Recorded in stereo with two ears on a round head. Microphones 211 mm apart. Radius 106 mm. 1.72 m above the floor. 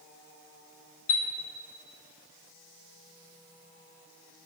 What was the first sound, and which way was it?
A chime, 55° left (ahead or behind).